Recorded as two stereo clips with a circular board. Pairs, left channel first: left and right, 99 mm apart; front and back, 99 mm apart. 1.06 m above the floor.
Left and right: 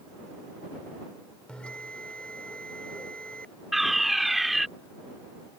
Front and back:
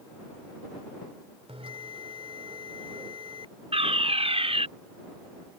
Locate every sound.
1.5 s a bell: 170° left
3.7 s a fire alarm: straight behind